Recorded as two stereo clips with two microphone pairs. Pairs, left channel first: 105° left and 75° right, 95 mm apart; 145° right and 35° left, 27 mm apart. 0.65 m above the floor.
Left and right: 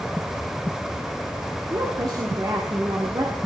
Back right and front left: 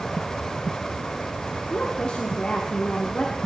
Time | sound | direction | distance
1.7 | a woman speaking | 110° right | 1.2 m